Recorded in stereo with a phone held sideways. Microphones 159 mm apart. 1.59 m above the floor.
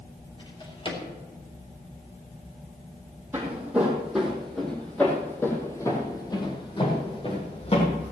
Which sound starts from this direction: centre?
Footsteps, at 3.3 s.